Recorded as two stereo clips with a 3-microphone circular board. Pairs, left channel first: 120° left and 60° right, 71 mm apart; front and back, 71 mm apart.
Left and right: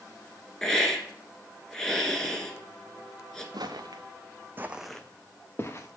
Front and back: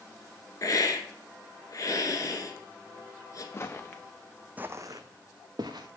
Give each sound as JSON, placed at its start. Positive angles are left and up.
{"t": 0.6, "sound": "a hiss", "azimuth_deg": 35, "distance_m": 1.3}
{"t": 3.5, "sound": "footsteps", "azimuth_deg": -55, "distance_m": 1.1}